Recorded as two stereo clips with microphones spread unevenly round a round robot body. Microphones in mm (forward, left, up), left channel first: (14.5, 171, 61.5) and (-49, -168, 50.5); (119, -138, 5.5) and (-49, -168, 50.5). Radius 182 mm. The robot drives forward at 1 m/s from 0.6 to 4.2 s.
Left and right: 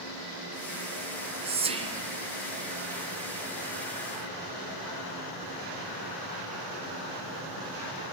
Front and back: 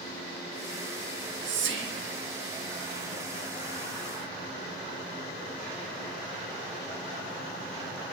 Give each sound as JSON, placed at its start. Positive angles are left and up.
{"t": 1.1, "sound": "whispering", "azimuth_deg": -170, "distance_m": 1.7}